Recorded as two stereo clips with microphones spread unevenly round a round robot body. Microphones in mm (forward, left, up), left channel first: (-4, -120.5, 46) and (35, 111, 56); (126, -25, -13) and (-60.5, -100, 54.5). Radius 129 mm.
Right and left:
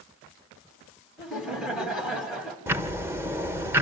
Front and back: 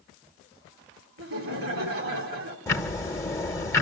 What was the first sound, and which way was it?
Laughter, 170° left.